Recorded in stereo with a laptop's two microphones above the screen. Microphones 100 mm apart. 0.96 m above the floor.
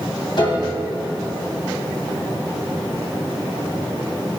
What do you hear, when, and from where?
0.4 s a piano: 55° left (ahead or behind), 2 m